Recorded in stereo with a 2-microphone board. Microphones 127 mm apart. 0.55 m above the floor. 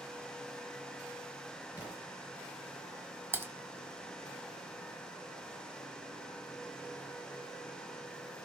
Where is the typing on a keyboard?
15° right (ahead or behind), 1.4 m.